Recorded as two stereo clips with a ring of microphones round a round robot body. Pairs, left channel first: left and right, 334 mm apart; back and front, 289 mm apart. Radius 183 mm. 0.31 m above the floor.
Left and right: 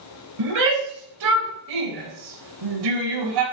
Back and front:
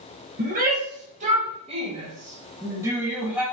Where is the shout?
60° right, 7 m; by 3.5 s 85° right, 7 m.